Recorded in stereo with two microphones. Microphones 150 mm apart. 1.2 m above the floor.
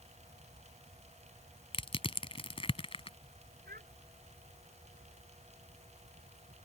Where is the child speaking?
75° right (ahead or behind).